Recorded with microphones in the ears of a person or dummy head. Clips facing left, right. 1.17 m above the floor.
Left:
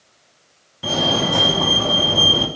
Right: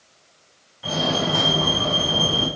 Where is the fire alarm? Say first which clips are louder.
Left 3 dB; 55° left (ahead or behind), 4.5 m.